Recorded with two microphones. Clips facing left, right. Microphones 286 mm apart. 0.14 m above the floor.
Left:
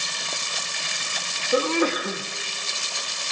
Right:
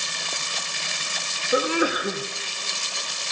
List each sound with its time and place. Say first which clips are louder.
1.5 s a sneeze: left 1 dB; 10° right (ahead or behind), 1.0 m